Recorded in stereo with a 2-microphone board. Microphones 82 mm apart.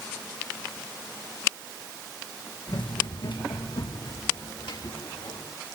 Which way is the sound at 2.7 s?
85° left.